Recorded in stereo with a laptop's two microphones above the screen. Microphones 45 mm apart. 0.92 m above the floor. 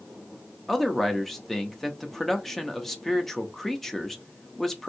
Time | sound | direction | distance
0.7 | a man speaking | 5° left (ahead or behind) | 0.7 m